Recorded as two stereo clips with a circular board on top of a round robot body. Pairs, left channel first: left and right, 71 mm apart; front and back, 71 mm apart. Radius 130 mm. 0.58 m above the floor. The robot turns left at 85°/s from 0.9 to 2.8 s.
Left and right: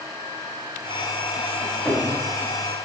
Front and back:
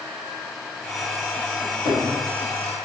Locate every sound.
1.6 s a cupboard door: 30° left, 1.3 m; by 2.0 s 5° right, 1.3 m